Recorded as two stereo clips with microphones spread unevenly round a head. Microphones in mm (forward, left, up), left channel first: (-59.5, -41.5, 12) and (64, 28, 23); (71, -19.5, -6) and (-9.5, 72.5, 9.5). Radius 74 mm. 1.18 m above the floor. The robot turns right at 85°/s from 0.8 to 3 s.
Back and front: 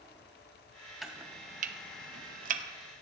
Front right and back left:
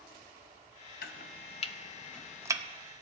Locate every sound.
1.0 s chopping: 60° right, 0.9 m; by 2.6 s 75° left, 0.9 m